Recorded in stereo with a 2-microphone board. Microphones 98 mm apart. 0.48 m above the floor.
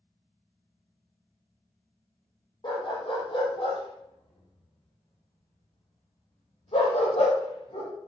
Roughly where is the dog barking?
Left.